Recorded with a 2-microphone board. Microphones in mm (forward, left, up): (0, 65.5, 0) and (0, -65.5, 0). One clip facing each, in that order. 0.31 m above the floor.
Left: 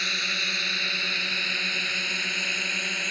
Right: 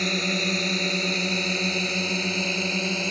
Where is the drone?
40° right (ahead or behind); by 3.1 s 30° right (ahead or behind).